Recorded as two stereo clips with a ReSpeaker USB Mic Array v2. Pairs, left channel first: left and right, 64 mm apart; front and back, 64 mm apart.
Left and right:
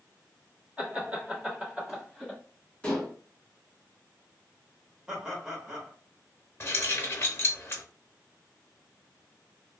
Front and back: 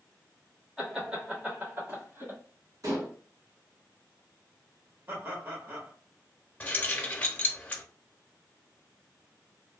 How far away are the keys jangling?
About 0.7 m.